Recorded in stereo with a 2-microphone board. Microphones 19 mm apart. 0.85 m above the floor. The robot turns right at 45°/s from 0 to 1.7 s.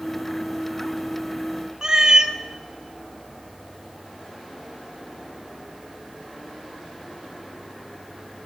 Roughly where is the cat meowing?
Right.